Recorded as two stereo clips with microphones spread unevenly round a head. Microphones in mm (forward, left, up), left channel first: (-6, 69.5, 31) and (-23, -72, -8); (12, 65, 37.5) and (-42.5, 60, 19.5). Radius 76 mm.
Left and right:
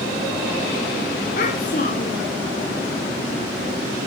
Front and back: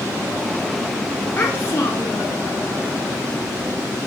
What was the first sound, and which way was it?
A child speaking, 45° left.